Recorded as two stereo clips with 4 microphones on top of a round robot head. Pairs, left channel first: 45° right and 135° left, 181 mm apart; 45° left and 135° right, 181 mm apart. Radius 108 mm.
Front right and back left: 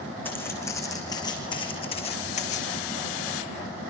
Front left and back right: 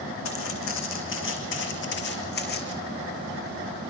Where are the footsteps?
35° left, 5.5 m; by 2.8 s 5° left, 5 m.